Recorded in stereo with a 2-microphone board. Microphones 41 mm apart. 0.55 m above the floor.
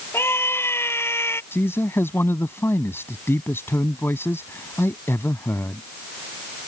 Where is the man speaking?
70° left (ahead or behind).